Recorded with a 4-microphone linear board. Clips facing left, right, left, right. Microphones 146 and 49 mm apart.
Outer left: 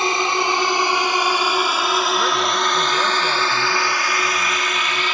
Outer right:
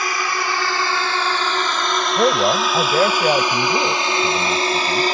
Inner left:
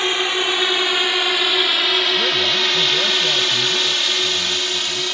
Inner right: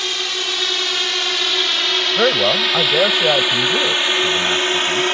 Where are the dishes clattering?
No dishes clattering in this recording.